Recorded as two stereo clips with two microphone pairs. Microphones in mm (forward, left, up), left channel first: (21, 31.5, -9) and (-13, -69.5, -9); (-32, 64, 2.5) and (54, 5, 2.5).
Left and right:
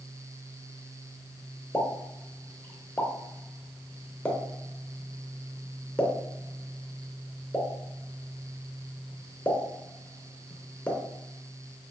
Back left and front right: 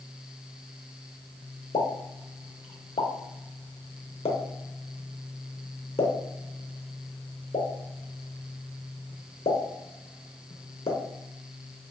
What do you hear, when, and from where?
1.7 s a pop: 145° left, 0.5 m